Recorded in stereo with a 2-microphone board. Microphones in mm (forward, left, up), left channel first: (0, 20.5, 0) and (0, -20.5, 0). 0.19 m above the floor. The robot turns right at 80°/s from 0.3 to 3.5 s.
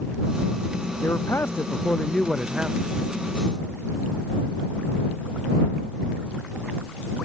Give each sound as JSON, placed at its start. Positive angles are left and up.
{"t": 1.0, "sound": "a man speaking", "azimuth_deg": 75}